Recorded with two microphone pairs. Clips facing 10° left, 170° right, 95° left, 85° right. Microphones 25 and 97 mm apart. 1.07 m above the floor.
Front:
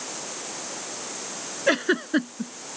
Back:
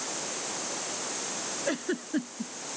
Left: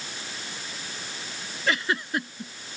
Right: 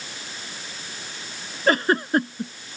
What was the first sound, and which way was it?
A giggle, 35° right.